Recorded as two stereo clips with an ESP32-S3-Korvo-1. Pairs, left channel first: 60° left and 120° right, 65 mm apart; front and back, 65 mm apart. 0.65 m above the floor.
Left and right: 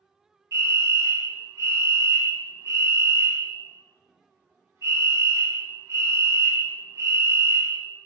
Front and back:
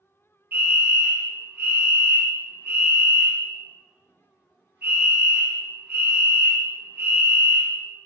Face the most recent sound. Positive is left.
turn(degrees=-130)